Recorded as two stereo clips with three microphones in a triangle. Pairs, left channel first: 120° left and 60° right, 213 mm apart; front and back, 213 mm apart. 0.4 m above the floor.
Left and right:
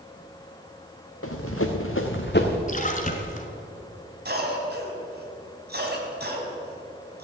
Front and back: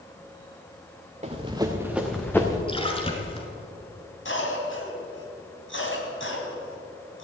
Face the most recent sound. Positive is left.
turn(degrees=-20)